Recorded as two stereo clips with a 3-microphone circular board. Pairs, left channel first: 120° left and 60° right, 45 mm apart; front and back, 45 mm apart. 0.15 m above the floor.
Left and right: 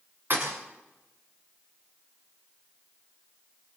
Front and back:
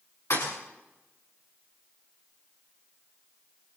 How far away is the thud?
About 8 m.